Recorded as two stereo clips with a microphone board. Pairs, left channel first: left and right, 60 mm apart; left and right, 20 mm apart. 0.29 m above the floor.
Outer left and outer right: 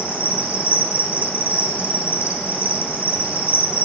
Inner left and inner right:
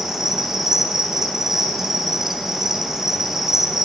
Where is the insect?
25° right (ahead or behind), 3.5 m.